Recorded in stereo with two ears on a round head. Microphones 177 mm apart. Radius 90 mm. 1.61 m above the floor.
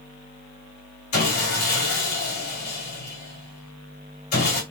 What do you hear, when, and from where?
1.1 s sawing: 45° left (ahead or behind), 2 m